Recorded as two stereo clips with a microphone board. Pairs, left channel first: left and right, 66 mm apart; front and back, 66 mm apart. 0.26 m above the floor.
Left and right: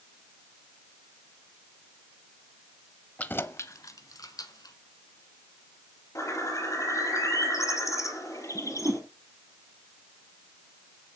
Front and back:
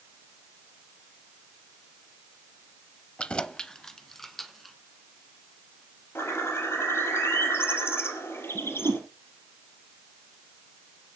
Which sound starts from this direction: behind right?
A whoosh, at 8.6 s.